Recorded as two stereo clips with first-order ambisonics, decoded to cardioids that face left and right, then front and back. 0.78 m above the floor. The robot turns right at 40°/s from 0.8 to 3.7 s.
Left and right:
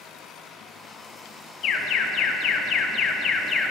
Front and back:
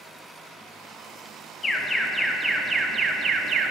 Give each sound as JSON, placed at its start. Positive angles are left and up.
{"t": 1.6, "sound": "an alarm", "azimuth_deg": 70, "distance_m": 1.0}